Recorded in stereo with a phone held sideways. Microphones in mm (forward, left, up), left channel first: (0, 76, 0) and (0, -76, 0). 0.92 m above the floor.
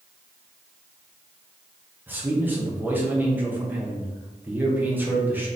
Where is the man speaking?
10° right (ahead or behind), 1.0 m.